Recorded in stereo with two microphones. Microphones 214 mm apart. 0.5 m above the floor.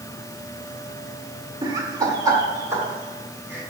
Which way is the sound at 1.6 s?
20° right (ahead or behind).